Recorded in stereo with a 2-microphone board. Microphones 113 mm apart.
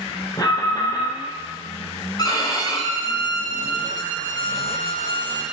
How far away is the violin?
About 6 m.